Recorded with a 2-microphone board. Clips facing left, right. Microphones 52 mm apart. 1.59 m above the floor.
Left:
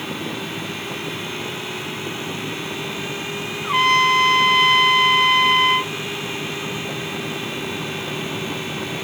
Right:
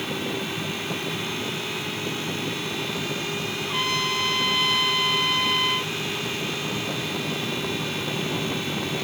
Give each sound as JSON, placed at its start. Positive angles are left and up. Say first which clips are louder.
{"t": 3.6, "sound": "a trumpet", "louder": "left 12 dB", "side_deg": 50, "distance_m": 0.7}